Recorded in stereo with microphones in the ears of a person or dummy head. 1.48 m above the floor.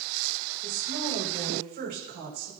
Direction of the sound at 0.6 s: 45° right (ahead or behind).